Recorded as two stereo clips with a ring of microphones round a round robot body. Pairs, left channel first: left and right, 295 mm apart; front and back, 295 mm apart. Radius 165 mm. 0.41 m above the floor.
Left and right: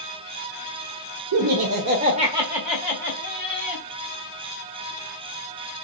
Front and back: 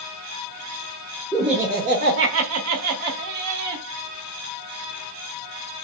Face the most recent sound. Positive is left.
turn(degrees=160)